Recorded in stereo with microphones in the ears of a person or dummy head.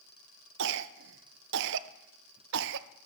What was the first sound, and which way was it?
A cough, 65° right (ahead or behind).